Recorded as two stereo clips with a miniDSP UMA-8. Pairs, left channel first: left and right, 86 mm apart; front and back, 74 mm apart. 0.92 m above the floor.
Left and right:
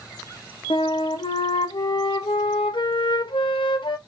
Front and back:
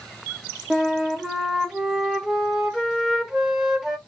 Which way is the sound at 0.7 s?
95° left.